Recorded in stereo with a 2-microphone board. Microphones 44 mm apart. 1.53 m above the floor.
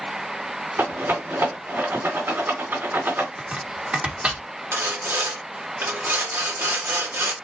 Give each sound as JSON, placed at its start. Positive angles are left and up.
{"t": 0.8, "sound": "a rattle", "side_deg": -60, "distance_m": 3.0}
{"t": 3.4, "sound": "chopping", "side_deg": -30, "distance_m": 1.5}
{"t": 4.7, "sound": "sawing", "side_deg": -65, "distance_m": 1.2}